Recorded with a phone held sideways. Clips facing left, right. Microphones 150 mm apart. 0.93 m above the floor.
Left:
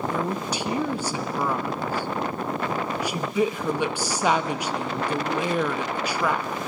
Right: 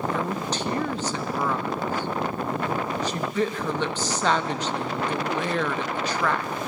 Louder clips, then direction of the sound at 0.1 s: Even; 10° left (ahead or behind).